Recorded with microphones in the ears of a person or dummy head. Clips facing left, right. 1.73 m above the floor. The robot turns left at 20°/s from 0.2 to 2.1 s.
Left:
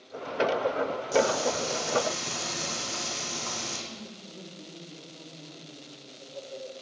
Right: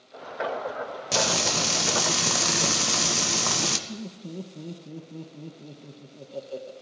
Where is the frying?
85° right, 1.3 m; by 3.8 s 75° right (ahead or behind), 1.3 m.